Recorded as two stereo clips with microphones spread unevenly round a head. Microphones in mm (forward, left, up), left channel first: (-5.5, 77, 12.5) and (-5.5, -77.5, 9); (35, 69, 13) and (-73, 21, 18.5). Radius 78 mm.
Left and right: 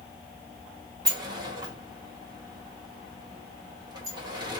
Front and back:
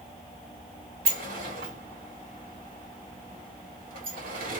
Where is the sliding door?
155° right, 1.3 m.